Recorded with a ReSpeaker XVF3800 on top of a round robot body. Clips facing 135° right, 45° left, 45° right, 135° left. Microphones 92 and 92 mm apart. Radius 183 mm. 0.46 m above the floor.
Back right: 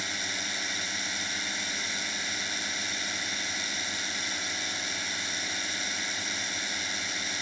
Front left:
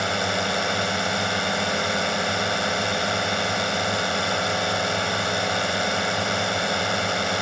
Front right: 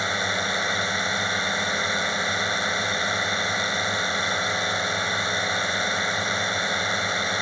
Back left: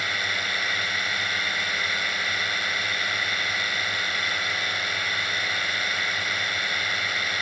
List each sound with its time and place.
0.0 s a drone: 20° left